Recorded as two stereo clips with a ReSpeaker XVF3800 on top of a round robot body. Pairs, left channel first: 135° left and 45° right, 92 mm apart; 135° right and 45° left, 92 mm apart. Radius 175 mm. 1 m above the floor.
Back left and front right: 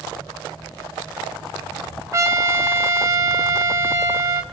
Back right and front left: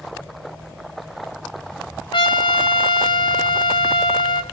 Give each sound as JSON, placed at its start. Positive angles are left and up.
{"t": 2.1, "sound": "a trumpet", "azimuth_deg": -105, "distance_m": 0.6}